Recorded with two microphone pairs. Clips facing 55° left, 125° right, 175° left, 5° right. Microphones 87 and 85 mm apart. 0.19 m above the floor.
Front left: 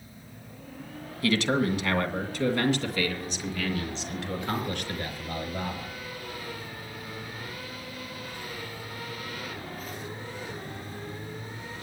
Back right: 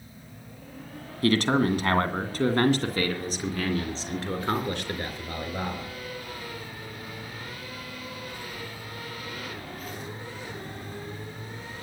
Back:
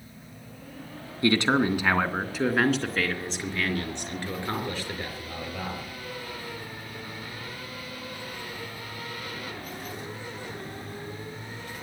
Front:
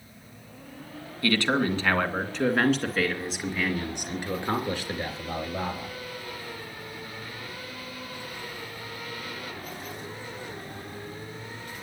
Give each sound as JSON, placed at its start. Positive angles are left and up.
{"t": 1.2, "sound": "a man speaking", "azimuth_deg": -130, "distance_m": 2.0}